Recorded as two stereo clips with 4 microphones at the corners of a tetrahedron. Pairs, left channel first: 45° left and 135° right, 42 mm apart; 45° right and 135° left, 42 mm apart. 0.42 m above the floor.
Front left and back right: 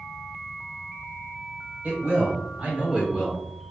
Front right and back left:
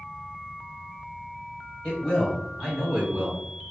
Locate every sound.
1.8 s a man speaking: 110° right, 1.5 m; by 3.4 s 145° left, 1.0 m